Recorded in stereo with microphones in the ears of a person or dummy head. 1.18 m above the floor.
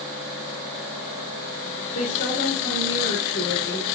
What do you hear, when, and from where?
1.9 s a woman speaking: 50° left (ahead or behind), 1.8 m; by 4.0 s 20° left (ahead or behind), 3 m